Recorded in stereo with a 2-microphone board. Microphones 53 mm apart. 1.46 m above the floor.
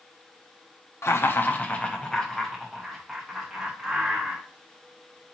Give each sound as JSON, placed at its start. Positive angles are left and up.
{"t": 1.0, "sound": "laughter", "side_deg": 60, "distance_m": 0.6}